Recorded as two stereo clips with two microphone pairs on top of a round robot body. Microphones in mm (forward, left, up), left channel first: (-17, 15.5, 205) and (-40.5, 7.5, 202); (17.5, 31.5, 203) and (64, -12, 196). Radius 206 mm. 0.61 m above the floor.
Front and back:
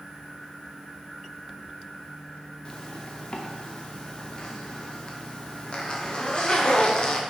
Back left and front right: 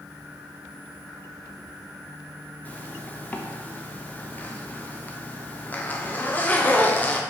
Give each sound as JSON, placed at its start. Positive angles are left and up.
{"t": 2.6, "sound": "a zipper", "azimuth_deg": 75, "distance_m": 0.5}